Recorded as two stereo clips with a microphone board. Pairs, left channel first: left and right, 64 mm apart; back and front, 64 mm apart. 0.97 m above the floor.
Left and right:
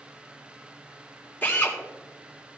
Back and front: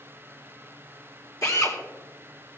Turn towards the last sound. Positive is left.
turn(degrees=150)